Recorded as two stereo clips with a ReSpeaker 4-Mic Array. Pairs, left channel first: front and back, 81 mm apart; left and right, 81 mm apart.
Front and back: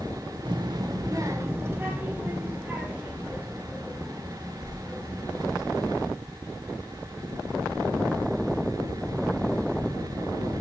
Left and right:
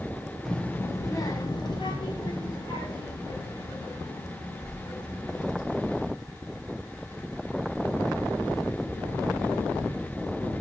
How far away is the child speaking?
About 0.5 m.